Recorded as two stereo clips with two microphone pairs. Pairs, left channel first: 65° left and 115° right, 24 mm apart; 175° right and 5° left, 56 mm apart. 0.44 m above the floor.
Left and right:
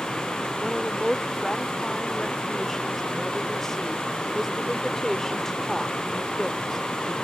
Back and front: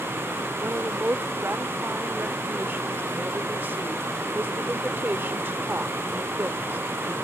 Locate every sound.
0.6 s a woman speaking: 5° left